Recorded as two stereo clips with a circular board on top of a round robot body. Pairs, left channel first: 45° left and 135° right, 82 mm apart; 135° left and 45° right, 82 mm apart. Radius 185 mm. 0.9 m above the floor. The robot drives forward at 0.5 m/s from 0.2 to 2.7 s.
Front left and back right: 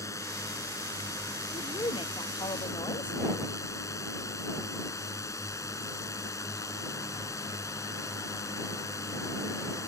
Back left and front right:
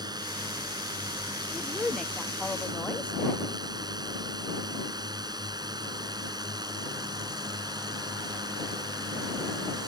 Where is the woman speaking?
50° left; by 3.2 s 60° left.